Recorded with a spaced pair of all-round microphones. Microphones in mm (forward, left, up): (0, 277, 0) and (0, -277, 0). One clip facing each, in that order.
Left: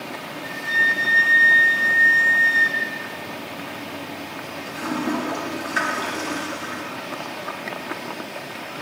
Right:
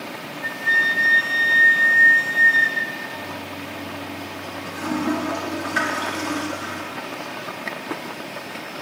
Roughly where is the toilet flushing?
Right.